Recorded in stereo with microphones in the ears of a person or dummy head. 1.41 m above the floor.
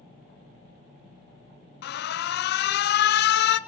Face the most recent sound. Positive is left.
turn(degrees=55)  # may be behind; listen again after turning